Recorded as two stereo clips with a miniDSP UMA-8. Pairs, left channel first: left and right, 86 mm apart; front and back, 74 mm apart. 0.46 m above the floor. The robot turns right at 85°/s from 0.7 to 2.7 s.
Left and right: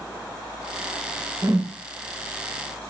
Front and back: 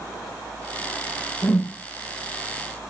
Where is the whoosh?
60° right, 0.9 m; by 1.8 s 30° right, 0.9 m.